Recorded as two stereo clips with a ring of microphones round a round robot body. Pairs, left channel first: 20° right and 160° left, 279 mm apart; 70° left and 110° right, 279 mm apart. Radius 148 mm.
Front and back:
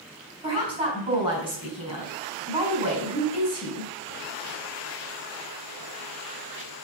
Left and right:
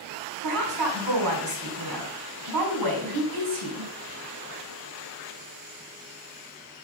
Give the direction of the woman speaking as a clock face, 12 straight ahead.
4 o'clock.